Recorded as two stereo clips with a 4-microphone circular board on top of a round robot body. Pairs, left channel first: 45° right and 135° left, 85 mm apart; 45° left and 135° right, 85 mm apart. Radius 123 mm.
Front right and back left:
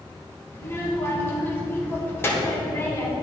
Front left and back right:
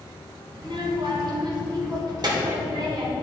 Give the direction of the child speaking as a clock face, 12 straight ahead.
4 o'clock.